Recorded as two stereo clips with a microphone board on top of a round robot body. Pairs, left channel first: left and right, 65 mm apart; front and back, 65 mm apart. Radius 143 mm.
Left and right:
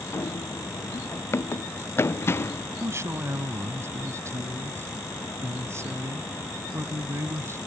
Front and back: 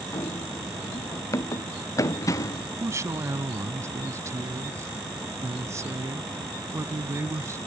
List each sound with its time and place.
0.1 s running footsteps: 40° left
2.8 s a woman speaking: 140° right